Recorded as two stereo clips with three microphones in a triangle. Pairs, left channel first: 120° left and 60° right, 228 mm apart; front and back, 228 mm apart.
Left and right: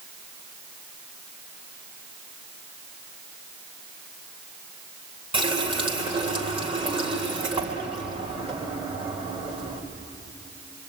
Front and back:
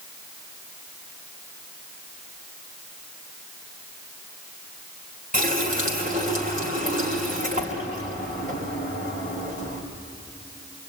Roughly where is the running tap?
Behind right.